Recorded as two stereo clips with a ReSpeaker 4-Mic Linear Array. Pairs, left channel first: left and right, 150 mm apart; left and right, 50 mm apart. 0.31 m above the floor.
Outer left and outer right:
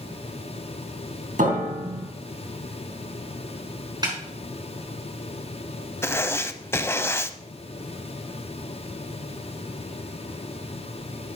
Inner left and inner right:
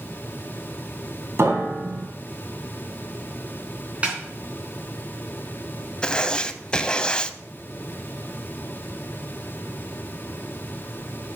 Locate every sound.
1.4 s a piano: 60° right (ahead or behind), 2.5 m
4.0 s a snare drum: 25° right (ahead or behind), 4 m
6.0 s writing: 15° left (ahead or behind), 0.5 m